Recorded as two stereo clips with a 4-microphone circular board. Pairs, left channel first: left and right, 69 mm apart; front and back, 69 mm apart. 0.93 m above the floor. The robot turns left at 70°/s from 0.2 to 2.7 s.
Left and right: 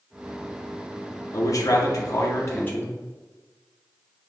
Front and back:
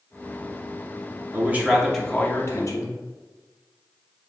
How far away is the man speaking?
About 0.9 m.